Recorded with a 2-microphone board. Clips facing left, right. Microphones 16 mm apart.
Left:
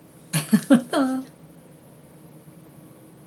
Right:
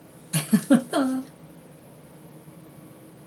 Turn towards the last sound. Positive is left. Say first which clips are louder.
# left 2 dB
turn(degrees=25)  # may be behind; listen again after turning